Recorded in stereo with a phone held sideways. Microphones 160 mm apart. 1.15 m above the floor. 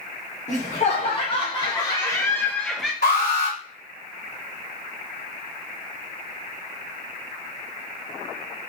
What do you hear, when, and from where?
0.5 s laughter: 55° left (ahead or behind), 1.6 m; by 2.9 s 5° right (ahead or behind), 0.8 m
3.0 s an alarm: 80° left, 2 m